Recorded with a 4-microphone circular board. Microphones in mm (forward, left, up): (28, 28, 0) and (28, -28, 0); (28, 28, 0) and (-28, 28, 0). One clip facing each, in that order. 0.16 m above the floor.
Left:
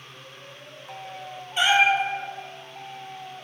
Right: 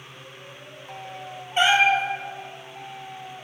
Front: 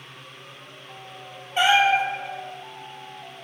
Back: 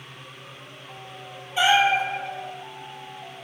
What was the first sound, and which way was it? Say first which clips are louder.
A cat meowing: right 1 dB, front 1 dB; 40° right.